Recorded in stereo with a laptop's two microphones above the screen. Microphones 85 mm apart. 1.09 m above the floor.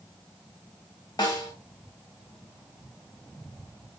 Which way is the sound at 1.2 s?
50° left (ahead or behind).